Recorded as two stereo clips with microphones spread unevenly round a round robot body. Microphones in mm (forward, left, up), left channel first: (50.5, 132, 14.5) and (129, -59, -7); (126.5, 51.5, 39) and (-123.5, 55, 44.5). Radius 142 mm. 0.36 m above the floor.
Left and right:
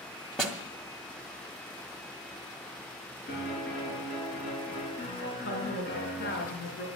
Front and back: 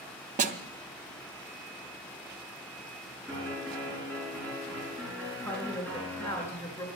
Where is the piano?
85° left, 7 m.